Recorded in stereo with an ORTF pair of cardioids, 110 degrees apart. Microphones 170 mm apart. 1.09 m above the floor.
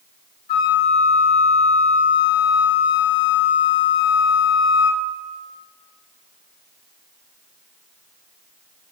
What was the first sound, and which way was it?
A flute, 65° left.